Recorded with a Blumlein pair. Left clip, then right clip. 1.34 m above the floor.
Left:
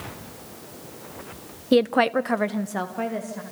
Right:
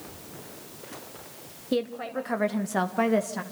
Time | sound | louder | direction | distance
1.7 | a woman speaking | left 10 dB | 70° left | 1.0 m